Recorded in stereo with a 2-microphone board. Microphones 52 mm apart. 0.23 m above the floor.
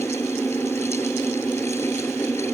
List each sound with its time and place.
Only background noise.